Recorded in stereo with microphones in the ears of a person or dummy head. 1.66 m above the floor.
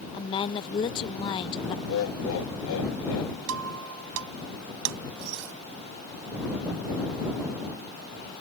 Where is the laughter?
75° left (ahead or behind).